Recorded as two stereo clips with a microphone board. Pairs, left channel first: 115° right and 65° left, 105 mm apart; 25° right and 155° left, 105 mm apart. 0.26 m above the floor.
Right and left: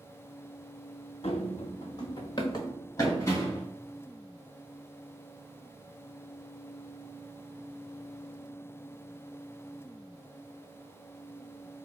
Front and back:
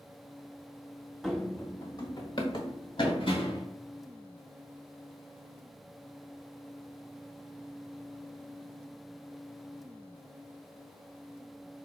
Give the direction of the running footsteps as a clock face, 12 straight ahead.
4 o'clock.